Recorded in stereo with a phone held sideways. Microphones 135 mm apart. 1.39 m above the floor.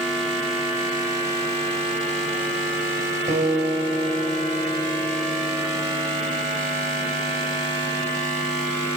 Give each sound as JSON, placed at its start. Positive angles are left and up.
{"t": 3.3, "sound": "a guitar", "side_deg": -75, "distance_m": 4.5}